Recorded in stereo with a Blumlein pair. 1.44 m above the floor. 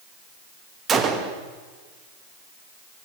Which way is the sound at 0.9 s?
25° right.